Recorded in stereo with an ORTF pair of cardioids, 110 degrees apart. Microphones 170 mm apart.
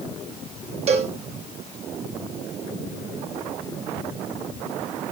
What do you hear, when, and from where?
0.9 s a cowbell: 40° right, 1.6 m